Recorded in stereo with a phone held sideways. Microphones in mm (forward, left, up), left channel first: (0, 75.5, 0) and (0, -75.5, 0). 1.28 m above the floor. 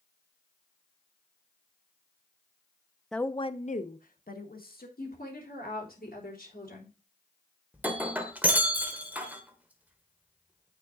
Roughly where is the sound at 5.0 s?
Left.